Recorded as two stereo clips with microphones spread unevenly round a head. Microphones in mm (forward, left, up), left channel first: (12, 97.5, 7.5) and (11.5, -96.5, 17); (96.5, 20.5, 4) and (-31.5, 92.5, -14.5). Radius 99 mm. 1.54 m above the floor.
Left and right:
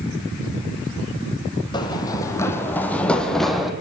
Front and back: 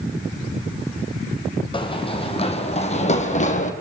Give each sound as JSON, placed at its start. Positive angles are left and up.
{"t": 1.7, "sound": "running footsteps", "azimuth_deg": 20, "distance_m": 4.5}